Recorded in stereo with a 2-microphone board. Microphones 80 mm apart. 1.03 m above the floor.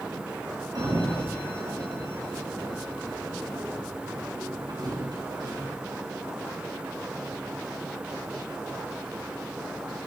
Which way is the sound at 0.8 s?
60° right (ahead or behind).